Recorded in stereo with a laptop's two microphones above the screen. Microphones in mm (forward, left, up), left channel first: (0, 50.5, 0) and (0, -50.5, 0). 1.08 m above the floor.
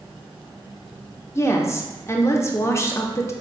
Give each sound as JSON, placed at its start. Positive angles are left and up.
{"t": 1.4, "sound": "a woman speaking", "side_deg": 30, "distance_m": 0.6}